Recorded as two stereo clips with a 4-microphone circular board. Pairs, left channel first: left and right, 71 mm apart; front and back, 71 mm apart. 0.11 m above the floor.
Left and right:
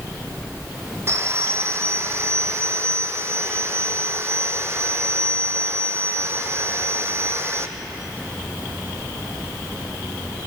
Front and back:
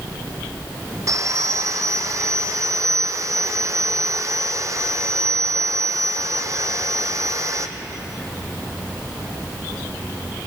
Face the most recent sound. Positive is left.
turn(degrees=-140)